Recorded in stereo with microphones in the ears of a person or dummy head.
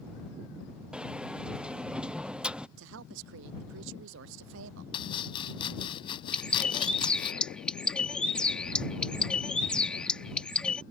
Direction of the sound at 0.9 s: 5° right (ahead or behind).